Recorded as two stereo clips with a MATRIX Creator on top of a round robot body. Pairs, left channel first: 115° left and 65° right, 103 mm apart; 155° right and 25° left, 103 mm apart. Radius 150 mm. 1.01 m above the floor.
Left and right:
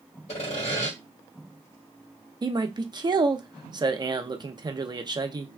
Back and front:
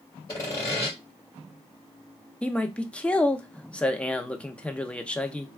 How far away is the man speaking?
About 0.7 m.